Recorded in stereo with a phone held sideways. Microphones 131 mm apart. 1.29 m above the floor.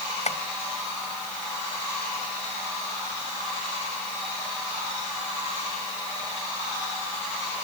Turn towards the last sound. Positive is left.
turn(degrees=60)  # may be behind; listen again after turning